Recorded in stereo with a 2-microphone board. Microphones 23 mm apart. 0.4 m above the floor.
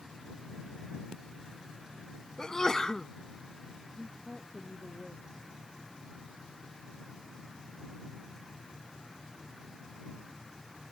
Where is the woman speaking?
35° left (ahead or behind).